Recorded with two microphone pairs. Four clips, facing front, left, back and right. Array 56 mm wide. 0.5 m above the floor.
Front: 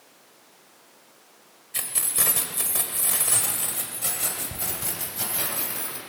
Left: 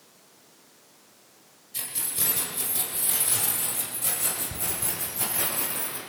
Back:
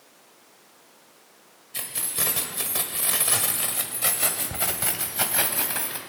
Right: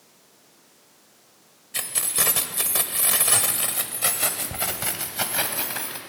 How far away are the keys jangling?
About 1.5 m.